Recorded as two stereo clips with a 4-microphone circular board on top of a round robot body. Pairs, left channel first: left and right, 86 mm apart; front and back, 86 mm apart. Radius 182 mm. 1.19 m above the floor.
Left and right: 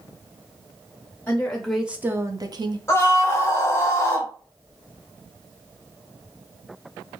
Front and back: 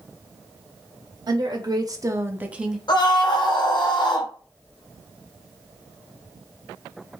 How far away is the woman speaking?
About 0.8 m.